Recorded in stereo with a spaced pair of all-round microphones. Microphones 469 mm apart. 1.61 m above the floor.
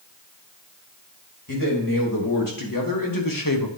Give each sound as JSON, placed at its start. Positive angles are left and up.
{"t": 1.5, "sound": "a man speaking", "side_deg": 45, "distance_m": 3.0}